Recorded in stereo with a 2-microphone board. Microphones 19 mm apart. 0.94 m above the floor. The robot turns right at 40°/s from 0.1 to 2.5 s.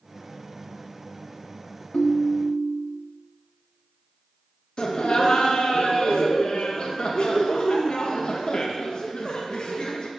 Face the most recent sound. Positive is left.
turn(degrees=45)  # may be behind; listen again after turning